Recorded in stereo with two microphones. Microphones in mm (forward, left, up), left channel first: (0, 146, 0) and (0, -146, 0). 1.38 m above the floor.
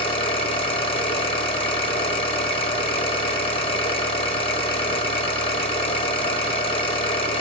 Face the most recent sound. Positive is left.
turn(degrees=20)  # may be behind; listen again after turning